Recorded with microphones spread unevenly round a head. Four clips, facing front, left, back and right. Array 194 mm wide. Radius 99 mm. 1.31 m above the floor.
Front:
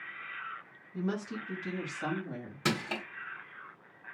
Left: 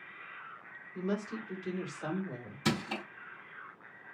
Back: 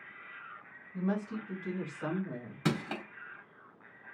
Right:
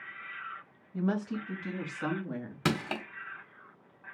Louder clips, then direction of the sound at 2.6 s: Right 2 dB, even; 75° right.